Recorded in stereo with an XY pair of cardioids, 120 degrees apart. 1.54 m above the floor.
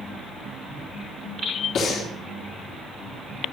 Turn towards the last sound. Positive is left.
turn(degrees=55)